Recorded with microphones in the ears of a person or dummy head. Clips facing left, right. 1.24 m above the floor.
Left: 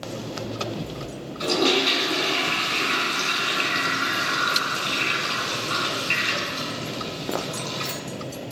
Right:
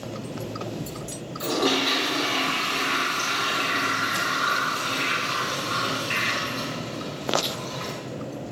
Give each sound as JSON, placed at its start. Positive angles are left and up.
{"t": 1.4, "sound": "a toilet flushing", "side_deg": 30, "distance_m": 4.0}